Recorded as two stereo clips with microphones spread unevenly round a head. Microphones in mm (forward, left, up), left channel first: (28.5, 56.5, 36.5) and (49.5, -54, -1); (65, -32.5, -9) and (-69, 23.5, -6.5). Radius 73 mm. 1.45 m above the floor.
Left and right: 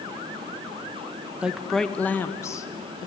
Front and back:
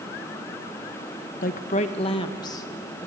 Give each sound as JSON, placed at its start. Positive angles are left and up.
{"t": 1.4, "sound": "a woman speaking", "azimuth_deg": 10, "distance_m": 1.0}